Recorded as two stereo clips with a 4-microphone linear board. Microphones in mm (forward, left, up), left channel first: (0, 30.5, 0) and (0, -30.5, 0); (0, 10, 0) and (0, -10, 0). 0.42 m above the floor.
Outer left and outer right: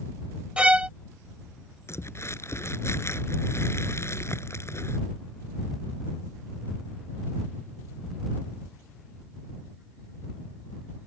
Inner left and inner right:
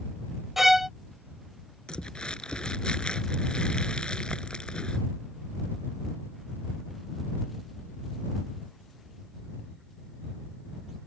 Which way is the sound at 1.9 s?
50° left (ahead or behind).